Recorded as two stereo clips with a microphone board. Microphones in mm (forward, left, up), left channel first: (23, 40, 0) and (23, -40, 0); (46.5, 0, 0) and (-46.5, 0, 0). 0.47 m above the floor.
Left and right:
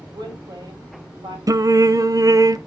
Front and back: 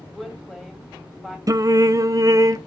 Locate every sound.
0.1 s a woman speaking: 85° right, 3 m
1.5 s singing: 130° right, 0.5 m